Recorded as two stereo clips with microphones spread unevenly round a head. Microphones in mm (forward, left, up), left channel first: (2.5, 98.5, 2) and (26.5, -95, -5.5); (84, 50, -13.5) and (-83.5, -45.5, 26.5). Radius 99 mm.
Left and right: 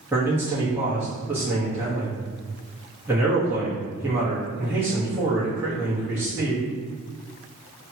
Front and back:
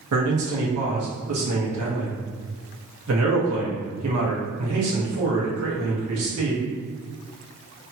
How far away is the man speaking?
About 1.1 m.